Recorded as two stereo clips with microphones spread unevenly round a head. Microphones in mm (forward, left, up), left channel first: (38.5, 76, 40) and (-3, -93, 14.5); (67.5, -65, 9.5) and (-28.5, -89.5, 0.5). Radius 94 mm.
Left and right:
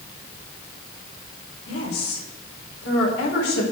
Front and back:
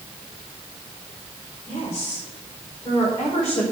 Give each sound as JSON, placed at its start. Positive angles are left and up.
{"t": 1.7, "sound": "a woman speaking", "azimuth_deg": 85, "distance_m": 4.5}